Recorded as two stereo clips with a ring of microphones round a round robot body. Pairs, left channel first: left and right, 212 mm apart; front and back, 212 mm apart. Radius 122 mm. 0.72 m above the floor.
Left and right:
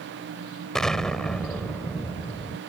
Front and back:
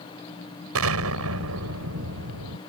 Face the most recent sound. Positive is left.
turn(degrees=180)